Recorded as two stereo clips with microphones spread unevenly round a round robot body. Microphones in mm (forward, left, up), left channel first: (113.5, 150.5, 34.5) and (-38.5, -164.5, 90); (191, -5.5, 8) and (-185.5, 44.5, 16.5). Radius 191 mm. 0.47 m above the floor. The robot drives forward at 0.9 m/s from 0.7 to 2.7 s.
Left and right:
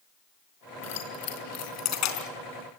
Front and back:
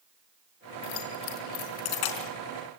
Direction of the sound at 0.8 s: 20° left.